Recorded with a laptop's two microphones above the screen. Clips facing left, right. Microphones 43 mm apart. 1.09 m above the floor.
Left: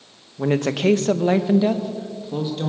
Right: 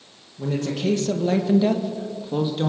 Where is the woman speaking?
75° left (ahead or behind), 1.2 m; by 2.7 s 20° right (ahead or behind), 1.8 m.